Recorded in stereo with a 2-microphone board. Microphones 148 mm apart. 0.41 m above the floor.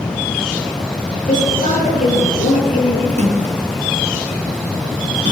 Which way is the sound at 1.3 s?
60° left (ahead or behind).